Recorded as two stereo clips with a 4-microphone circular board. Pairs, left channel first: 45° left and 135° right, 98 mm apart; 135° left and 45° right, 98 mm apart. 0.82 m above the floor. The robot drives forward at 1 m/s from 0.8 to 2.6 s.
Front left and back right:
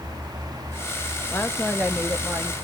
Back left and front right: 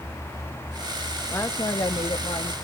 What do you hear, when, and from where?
1.3 s a woman speaking: 95° left, 0.9 m; by 2.5 s 160° left, 1.5 m